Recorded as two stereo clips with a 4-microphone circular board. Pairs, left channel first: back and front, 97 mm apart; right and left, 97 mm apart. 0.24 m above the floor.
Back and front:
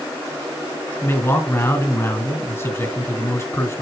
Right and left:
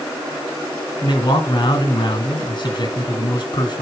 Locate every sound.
1.0 s a man speaking: 120° right, 2.5 m